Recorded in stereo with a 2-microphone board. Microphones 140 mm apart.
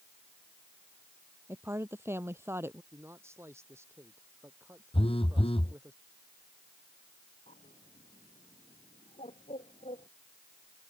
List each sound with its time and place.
1.5 s a woman speaking: 20° right (ahead or behind)
2.9 s a man speaking: 20° right (ahead or behind)
4.9 s a phone buzzing: 40° left (ahead or behind)
7.5 s a bird: 55° left (ahead or behind)